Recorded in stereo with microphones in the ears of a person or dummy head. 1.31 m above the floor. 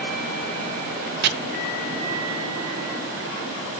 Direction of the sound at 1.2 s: 55° right (ahead or behind).